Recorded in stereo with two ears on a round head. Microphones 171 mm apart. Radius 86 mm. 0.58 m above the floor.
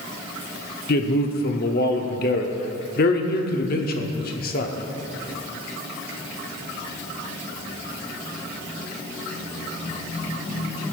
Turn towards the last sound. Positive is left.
turn(degrees=50)  # may be behind; listen again after turning